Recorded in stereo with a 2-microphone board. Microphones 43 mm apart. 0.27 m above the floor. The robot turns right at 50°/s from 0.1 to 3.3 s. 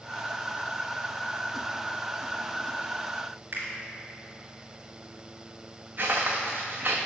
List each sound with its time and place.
3.5 s a finger snap: 45° right (ahead or behind), 2.0 m
6.0 s footsteps: 40° right (ahead or behind), 1.4 m